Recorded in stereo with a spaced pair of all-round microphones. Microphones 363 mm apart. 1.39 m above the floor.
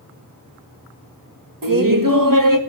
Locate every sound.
1.6 s laughter: 60° right (ahead or behind), 1.6 m